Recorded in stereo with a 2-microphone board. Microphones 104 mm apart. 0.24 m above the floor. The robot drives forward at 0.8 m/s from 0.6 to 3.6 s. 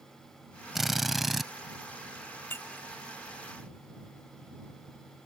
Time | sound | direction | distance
0.8 | a drill | centre (ahead or behind) | ?
2.5 | breaking glass | 20° left (ahead or behind) | ?